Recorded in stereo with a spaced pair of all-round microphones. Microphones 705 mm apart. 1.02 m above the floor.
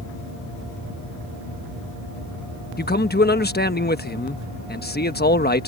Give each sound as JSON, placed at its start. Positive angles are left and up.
{"t": 2.8, "sound": "a man speaking", "side_deg": 15}